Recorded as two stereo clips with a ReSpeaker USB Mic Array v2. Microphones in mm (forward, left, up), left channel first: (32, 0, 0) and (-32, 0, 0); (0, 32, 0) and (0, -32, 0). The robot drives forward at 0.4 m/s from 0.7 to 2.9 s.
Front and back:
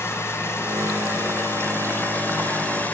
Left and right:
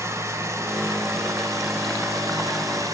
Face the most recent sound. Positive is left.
turn(degrees=-65)